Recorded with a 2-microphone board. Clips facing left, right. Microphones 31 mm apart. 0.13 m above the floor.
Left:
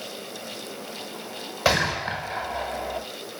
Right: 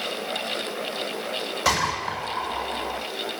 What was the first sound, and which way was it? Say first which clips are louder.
A gunshot: left 2 dB; 20° left (ahead or behind).